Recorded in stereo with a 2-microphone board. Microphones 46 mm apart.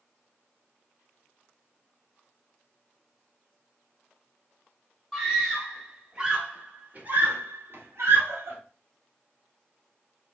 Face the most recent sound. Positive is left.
turn(degrees=-65)  # may be behind; listen again after turning